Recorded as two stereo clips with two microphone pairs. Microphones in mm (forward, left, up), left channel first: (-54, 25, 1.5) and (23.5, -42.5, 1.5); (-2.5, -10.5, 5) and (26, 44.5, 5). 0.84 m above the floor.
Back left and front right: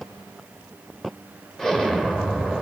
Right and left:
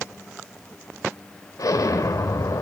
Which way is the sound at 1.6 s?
130° right.